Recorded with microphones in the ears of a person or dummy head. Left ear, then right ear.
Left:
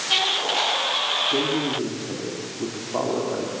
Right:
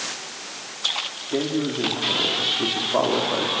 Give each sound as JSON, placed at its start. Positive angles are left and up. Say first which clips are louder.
{"t": 1.3, "sound": "a man speaking", "louder": "left 2 dB", "side_deg": -75, "distance_m": 2.5}